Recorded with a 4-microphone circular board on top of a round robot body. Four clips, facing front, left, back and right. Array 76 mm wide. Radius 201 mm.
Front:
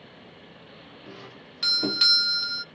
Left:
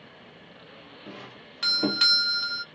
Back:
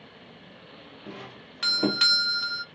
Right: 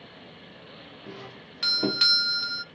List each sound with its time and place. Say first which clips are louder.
1.1 s a doorbell: right 1 dB, back 3 dB; 165° left, 1.0 m